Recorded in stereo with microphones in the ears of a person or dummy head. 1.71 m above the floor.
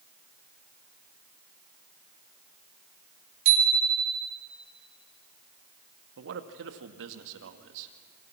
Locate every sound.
3.5 s a bicycle bell: 75° right (ahead or behind), 4.5 m
6.2 s a man speaking: 65° right (ahead or behind), 2 m